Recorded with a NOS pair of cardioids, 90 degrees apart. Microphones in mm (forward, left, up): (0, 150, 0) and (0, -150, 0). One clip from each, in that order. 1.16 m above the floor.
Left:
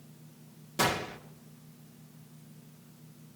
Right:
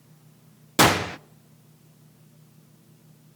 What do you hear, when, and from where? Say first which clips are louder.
0.8 s a gunshot: right 10 dB; 60° right, 0.6 m